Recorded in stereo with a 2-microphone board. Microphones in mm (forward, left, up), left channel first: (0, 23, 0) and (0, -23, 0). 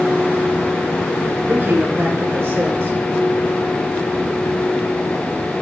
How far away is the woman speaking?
About 5.5 m.